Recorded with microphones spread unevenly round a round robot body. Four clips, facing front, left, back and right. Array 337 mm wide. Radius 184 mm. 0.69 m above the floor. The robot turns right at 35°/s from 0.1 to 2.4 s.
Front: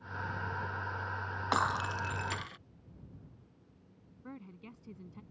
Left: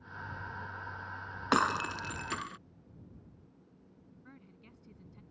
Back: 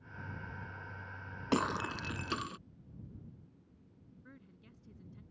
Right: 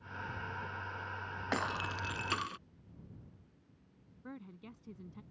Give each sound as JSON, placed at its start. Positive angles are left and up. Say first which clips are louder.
{"t": 1.5, "sound": "breaking glass", "louder": "left 8 dB, front 1 dB", "azimuth_deg": 145}
{"t": 4.2, "sound": "a woman speaking", "louder": "right 10 dB, front 12 dB", "azimuth_deg": -35}